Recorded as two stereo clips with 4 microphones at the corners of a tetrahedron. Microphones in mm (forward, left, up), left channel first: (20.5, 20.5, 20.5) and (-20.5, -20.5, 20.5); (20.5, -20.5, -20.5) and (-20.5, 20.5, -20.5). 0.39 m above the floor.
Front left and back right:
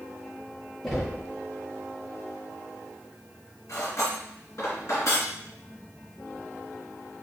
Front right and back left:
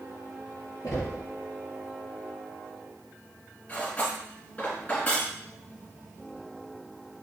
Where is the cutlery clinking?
15° left, 2.5 m.